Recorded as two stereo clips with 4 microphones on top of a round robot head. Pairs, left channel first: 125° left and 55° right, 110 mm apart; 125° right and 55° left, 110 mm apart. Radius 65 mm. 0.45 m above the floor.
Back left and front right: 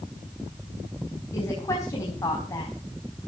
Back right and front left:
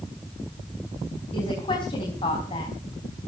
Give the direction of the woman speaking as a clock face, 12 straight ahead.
6 o'clock.